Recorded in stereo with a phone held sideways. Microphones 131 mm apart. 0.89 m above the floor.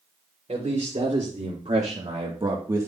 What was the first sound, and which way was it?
A man speaking, 60° right (ahead or behind).